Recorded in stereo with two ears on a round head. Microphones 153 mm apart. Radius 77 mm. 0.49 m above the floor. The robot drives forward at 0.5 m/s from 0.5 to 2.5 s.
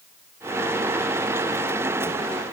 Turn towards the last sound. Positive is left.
No sound to turn to.